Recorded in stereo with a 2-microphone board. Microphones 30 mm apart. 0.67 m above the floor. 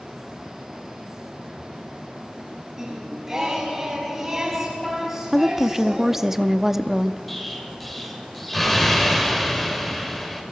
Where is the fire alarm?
No fire alarm in this recording.